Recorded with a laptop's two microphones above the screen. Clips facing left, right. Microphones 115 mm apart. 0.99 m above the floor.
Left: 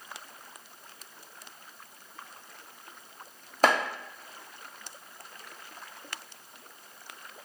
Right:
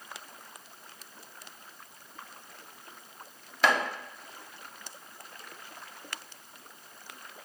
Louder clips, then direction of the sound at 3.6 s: Left 2 dB; 45° left (ahead or behind).